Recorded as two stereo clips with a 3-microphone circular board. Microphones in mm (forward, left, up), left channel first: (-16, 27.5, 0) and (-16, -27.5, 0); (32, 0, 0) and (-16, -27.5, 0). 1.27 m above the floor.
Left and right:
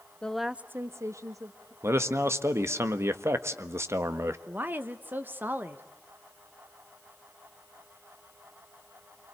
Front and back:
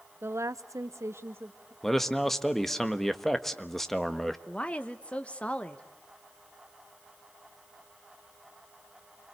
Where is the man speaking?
55° right, 1.4 m.